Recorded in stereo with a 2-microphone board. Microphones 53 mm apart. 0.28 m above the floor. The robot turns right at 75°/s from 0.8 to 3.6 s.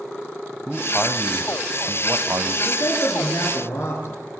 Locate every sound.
0.7 s a man speaking: 175° left, 1.2 m; by 2.5 s 55° right, 1.2 m
2.6 s a man speaking: 50° left, 5 m; by 4.2 s 120° left, 5 m